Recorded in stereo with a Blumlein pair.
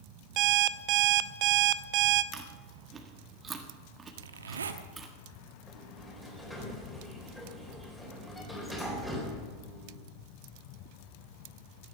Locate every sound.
0.4 s an alarm clock: 40° right, 0.5 m
2.3 s chewing: 20° right, 1.6 m
4.2 s a zipper: 70° right, 1.1 m
5.7 s a sliding door: 5° left, 4 m